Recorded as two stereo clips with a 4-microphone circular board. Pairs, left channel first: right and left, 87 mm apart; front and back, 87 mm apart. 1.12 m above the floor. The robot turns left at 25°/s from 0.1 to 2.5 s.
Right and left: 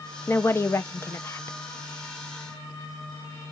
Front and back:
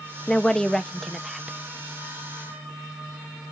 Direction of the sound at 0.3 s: 70° right.